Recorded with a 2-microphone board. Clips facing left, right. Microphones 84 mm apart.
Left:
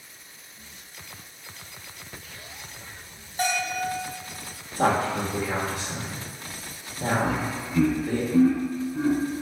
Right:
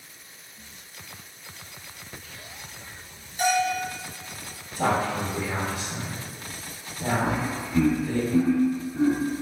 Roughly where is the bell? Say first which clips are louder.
Right 4 dB; left.